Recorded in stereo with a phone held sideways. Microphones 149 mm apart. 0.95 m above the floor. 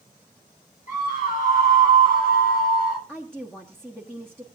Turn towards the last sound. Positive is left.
turn(degrees=5)  # may be behind; listen again after turning